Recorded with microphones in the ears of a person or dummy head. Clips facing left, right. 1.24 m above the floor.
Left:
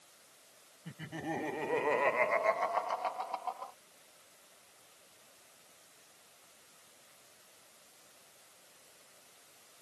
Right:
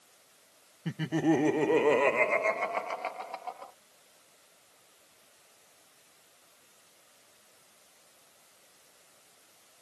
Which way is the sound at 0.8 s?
70° right (ahead or behind).